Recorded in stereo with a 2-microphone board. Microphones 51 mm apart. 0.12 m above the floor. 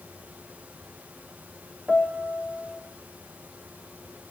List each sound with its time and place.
1.9 s a piano: centre (ahead or behind), 2.5 m